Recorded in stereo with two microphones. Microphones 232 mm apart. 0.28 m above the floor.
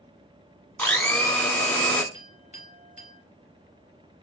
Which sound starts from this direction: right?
A clink, at 2.1 s.